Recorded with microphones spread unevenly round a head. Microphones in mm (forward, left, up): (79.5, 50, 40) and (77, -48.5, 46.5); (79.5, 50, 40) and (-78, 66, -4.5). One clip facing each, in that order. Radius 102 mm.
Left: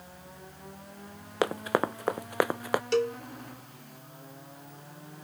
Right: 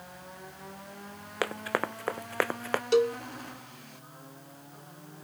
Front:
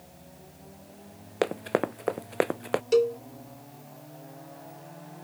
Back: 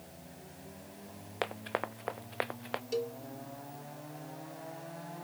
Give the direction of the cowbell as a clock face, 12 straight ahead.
1 o'clock.